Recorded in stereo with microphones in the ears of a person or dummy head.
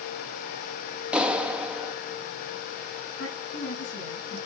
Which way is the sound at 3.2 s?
65° left (ahead or behind).